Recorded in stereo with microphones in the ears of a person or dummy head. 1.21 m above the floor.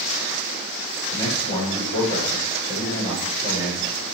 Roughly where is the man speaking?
Left.